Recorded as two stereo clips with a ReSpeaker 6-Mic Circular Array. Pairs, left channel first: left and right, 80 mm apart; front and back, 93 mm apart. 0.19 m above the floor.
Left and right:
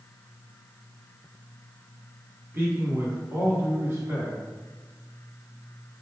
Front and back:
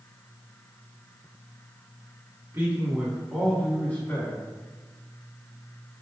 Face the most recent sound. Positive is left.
turn(degrees=-45)